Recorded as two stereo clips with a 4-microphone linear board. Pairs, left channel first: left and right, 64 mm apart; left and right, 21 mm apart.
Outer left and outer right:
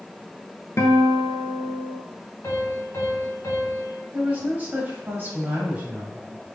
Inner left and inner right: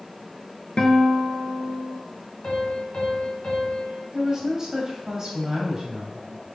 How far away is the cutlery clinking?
No cutlery clinking in this recording.